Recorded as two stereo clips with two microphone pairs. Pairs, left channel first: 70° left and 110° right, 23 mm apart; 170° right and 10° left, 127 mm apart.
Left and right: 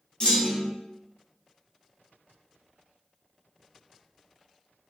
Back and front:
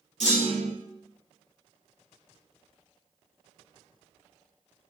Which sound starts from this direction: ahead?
A clunk, at 0.2 s.